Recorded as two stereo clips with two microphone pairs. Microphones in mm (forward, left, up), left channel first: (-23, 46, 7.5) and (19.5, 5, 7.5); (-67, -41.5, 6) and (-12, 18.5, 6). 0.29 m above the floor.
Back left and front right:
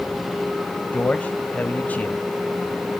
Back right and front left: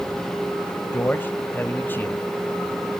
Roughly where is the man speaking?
Behind.